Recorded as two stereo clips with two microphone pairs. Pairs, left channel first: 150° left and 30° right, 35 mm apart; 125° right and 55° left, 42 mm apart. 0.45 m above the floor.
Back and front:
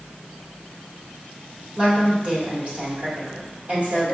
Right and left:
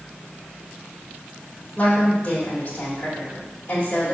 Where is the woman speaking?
65° right, 1.7 m.